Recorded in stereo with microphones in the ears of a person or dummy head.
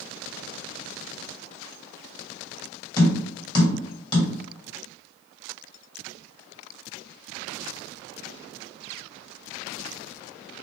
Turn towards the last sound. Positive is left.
turn(degrees=30)  # may be behind; listen again after turning